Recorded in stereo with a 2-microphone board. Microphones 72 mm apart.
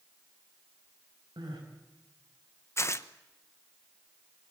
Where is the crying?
85° right, 6 m.